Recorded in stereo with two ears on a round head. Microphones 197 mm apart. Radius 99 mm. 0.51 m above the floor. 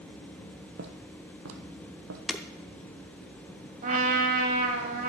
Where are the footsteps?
50° right (ahead or behind), 1.1 m; by 2.2 s 65° right (ahead or behind), 1.4 m.